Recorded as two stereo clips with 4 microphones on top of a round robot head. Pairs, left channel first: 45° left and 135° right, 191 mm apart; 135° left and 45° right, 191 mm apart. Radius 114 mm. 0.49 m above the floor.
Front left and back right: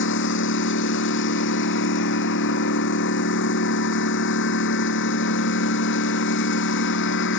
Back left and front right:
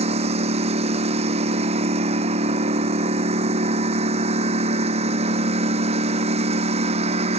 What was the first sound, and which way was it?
A lawn mower, 15° left.